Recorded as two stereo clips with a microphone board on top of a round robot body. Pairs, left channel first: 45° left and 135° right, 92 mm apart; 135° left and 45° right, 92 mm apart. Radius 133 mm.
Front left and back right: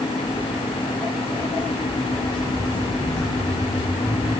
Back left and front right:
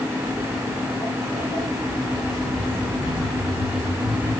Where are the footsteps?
120° left, 4 m.